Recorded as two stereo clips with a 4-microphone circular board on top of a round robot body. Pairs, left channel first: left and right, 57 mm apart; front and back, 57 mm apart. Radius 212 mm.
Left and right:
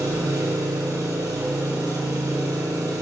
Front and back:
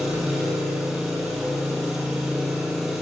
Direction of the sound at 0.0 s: 100° right.